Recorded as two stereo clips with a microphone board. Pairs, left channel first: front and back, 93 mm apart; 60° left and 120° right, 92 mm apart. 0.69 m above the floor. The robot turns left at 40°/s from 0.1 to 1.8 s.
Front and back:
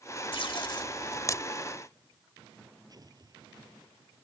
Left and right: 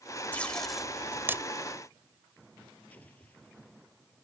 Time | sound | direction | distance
0.3 | tape being pulled | 15° right | ?
2.9 | an explosion | 135° left | ?